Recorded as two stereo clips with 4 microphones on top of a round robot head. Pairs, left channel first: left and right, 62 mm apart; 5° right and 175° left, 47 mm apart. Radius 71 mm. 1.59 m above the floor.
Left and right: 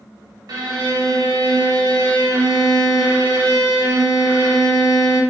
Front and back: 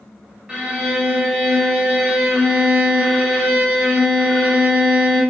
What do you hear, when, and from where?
0.5 s a violin: 115° right, 0.5 m